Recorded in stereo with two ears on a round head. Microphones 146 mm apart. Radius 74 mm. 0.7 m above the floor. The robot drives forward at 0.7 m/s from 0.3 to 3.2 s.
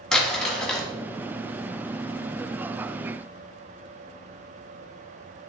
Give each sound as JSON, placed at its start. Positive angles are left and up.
{"t": 0.1, "sound": "crumpling", "side_deg": 5, "distance_m": 1.8}